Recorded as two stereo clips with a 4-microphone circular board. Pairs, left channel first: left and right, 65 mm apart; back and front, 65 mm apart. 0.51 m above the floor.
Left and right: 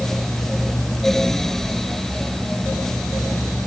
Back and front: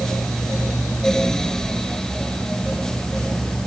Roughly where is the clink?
I don't hear a clink.